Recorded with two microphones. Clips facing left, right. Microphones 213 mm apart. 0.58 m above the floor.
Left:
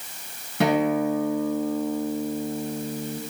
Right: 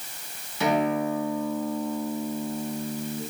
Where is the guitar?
60° left (ahead or behind), 3.5 m.